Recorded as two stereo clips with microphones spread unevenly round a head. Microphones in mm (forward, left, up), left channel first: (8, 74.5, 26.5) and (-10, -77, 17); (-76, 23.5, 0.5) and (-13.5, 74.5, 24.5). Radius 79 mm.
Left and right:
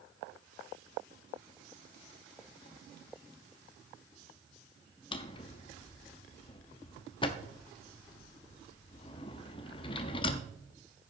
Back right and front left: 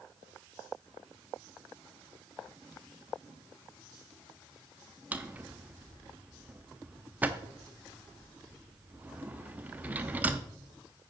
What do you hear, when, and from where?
5.1 s a drawer: 55° left, 0.6 m